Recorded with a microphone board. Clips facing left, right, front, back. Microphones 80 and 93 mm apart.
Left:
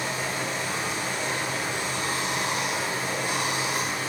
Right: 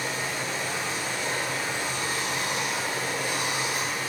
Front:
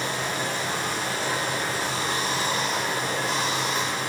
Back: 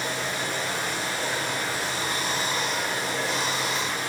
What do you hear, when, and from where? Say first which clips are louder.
0.0 s running water: left 1 dB, front 1 dB; 30° left, 1.6 m